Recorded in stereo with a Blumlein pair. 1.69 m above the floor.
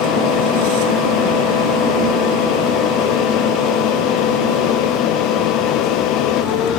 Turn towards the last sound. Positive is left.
turn(degrees=40)